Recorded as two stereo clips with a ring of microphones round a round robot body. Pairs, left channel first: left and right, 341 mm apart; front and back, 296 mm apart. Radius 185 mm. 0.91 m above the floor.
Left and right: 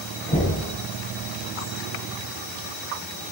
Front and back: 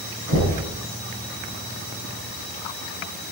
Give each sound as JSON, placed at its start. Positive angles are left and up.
{"t": 0.3, "sound": "knocking", "azimuth_deg": 165, "distance_m": 5.5}